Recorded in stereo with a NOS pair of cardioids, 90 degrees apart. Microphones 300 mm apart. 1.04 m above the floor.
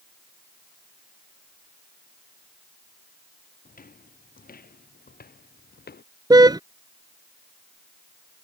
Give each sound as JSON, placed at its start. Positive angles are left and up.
{"t": 3.6, "sound": "footsteps", "azimuth_deg": 30}
{"t": 6.3, "sound": "a car horn", "azimuth_deg": -10}